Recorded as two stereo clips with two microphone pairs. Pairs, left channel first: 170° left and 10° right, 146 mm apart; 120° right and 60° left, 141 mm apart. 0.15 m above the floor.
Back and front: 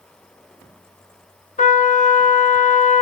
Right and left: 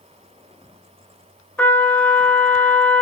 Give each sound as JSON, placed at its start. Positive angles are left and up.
{"t": 1.6, "sound": "a trumpet", "azimuth_deg": 160, "distance_m": 0.7}